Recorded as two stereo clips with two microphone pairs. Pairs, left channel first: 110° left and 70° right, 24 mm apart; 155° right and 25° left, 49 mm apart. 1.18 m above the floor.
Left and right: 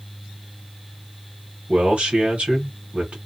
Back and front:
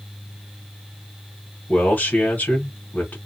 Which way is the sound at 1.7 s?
105° right.